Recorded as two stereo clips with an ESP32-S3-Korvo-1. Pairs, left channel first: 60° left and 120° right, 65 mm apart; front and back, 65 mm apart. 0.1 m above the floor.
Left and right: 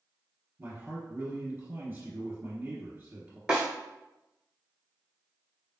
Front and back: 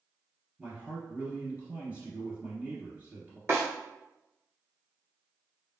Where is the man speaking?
130° right, 1.4 m.